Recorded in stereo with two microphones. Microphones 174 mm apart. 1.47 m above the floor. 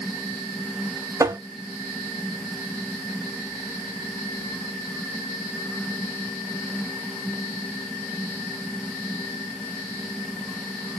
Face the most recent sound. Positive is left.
turn(degrees=-20)  # may be behind; listen again after turning